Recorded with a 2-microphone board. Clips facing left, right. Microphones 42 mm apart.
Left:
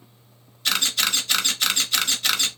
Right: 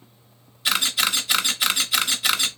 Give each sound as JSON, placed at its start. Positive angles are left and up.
{"t": 0.7, "sound": "a camera shutter", "side_deg": -10, "distance_m": 0.8}